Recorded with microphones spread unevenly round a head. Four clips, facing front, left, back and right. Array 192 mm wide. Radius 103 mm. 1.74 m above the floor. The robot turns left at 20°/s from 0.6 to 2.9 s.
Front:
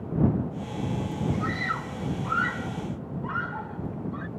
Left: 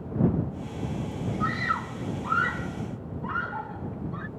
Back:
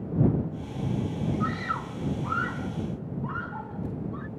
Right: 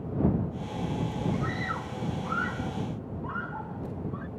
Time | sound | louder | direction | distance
1.4 | a scream | left 4 dB, even | 95° left | ?